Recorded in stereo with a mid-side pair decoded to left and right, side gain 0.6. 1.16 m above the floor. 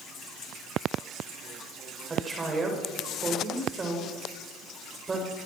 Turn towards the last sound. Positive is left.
turn(degrees=-25)